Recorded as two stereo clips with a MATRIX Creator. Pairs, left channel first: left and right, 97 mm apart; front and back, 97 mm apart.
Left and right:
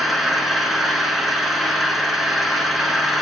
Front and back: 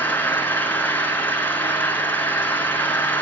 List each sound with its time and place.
0.0 s an engine running: 5° right, 1.5 m